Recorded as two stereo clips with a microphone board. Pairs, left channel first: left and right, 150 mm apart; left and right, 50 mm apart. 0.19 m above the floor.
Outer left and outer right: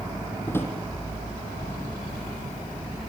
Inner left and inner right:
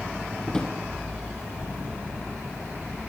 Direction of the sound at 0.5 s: 15° left (ahead or behind).